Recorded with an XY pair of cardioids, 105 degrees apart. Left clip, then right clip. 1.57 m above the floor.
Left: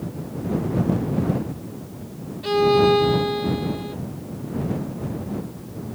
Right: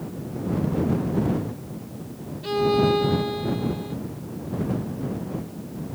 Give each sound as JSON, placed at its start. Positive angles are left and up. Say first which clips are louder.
{"t": 2.4, "sound": "a violin", "louder": "left 4 dB", "azimuth_deg": 25}